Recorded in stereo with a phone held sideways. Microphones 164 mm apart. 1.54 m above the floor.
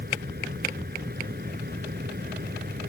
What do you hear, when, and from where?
0.0 s a fan: 75° right (ahead or behind)